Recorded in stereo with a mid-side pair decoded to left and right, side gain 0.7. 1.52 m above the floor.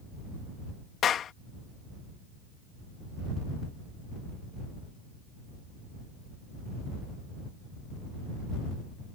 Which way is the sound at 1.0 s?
40° left.